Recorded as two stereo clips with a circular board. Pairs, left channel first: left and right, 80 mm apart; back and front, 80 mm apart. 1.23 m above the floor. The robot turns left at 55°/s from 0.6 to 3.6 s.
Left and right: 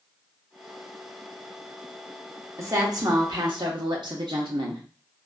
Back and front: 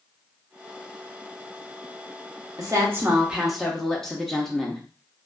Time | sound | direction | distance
2.6 | a woman speaking | 40° right | 1.0 m